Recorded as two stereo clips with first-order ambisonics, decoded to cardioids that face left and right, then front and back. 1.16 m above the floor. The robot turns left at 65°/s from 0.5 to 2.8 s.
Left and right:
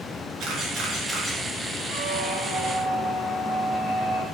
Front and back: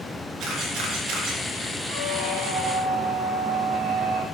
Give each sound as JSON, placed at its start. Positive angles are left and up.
{"t": 0.4, "sound": "a camera shutter", "azimuth_deg": -135, "distance_m": 4.0}
{"t": 1.9, "sound": "a squeak", "azimuth_deg": -130, "distance_m": 5.0}